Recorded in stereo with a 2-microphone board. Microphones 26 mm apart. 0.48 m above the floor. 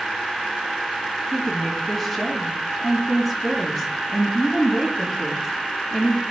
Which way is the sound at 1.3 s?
Centre (ahead or behind).